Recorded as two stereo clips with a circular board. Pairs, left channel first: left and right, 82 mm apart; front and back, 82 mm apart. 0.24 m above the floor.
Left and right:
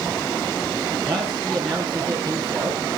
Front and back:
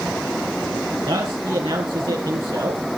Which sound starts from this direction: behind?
A man speaking, at 1.1 s.